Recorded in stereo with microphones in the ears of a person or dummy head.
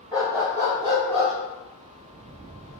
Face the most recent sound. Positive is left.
turn(degrees=-30)  # may be behind; listen again after turning